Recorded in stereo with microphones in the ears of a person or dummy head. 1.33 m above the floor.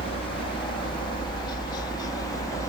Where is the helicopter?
30° left (ahead or behind); by 2.7 s 15° left (ahead or behind).